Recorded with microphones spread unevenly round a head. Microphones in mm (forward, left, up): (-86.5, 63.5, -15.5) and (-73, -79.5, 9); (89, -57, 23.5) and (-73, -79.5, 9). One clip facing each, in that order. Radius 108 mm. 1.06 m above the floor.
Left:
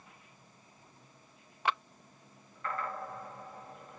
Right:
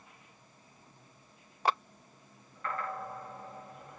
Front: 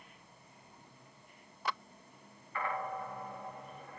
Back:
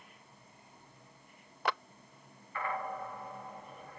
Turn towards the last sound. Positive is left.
turn(degrees=-140)